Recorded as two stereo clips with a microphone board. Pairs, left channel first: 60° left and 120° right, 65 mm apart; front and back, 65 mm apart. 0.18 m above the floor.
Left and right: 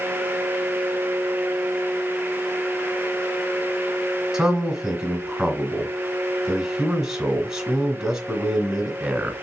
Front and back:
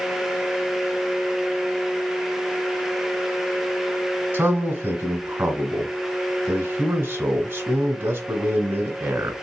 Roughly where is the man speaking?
Behind.